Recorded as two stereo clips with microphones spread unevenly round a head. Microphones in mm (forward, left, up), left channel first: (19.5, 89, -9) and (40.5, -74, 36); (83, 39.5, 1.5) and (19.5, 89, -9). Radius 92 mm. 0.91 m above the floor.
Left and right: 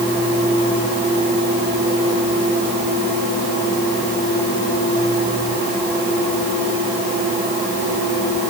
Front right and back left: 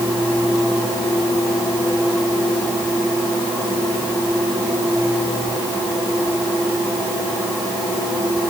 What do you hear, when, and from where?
Only background noise.